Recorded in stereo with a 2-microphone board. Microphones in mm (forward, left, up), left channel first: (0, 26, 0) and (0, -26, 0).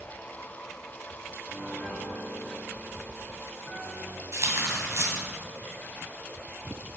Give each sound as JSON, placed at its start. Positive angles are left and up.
{"t": 1.5, "sound": "a piano", "side_deg": 15, "distance_m": 4.0}
{"t": 4.3, "sound": "tearing paper", "side_deg": -60, "distance_m": 2.5}